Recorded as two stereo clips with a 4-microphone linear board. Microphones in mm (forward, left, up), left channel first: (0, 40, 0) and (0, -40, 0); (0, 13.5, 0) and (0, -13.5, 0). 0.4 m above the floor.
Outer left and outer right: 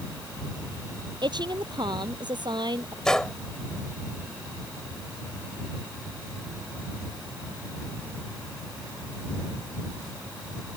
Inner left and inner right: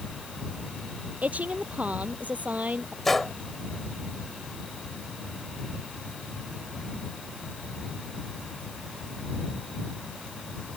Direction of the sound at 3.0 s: 10° left (ahead or behind).